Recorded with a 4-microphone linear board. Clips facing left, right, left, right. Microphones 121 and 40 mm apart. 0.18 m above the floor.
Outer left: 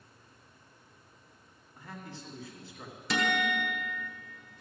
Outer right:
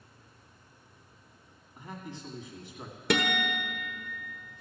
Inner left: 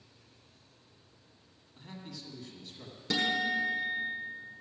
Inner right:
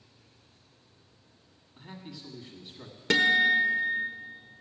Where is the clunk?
I don't hear a clunk.